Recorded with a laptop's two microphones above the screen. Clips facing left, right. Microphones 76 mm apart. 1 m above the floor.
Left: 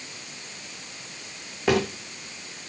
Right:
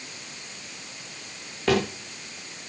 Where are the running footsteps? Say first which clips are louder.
Even; 10° left (ahead or behind), 4.5 m.